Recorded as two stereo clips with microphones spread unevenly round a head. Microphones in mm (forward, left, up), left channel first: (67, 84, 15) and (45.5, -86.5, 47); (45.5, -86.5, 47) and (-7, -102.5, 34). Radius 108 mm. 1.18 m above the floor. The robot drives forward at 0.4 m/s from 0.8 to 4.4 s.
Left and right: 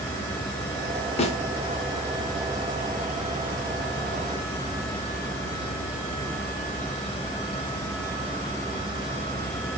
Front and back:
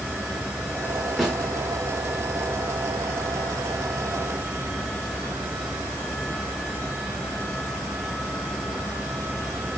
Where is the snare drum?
75° left, 0.8 m; by 1.4 s 85° left, 0.8 m.